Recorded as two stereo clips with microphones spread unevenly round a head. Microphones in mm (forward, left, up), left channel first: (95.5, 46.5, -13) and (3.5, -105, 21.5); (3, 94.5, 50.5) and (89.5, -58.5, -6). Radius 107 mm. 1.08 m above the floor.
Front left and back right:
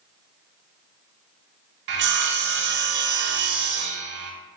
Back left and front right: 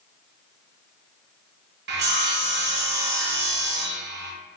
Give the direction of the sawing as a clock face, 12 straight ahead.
3 o'clock.